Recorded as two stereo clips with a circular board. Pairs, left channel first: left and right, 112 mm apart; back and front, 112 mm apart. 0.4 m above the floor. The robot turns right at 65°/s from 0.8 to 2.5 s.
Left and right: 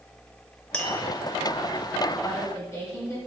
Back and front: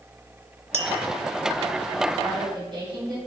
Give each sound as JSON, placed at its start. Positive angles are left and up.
{"t": 0.7, "sound": "tapping", "azimuth_deg": 10, "distance_m": 0.7}
{"t": 2.2, "sound": "a woman speaking", "azimuth_deg": 15, "distance_m": 2.5}